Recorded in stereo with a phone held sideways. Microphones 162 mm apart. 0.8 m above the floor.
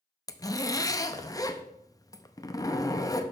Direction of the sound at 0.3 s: 25° left (ahead or behind).